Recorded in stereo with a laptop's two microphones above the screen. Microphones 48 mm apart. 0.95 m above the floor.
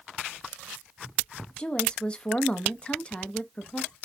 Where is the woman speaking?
25° left (ahead or behind), 1.0 m.